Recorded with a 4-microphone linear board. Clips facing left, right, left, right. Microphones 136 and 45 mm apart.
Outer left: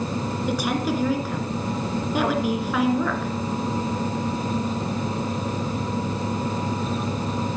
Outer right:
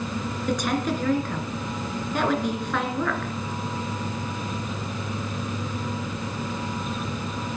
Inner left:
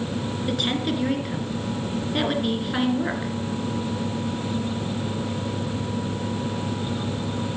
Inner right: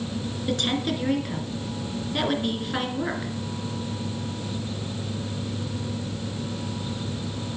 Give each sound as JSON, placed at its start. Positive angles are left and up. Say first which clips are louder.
{"t": 0.5, "sound": "a woman speaking", "louder": "even, even", "side_deg": 5, "distance_m": 2.5}